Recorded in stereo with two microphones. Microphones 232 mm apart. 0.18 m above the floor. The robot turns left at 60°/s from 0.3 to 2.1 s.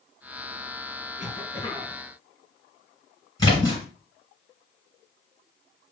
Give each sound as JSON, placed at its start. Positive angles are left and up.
{"t": 1.2, "sound": "a cough", "azimuth_deg": 80, "distance_m": 1.8}
{"t": 3.4, "sound": "a splash", "side_deg": 15, "distance_m": 2.5}